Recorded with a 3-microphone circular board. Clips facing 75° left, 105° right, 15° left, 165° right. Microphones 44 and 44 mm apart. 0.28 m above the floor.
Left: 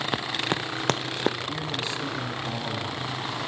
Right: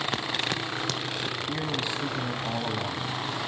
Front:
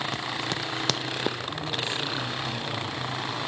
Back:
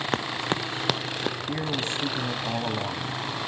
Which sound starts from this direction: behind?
A man speaking, at 1.5 s.